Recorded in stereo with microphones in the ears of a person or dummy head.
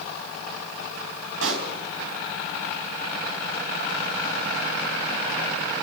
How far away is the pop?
About 4 m.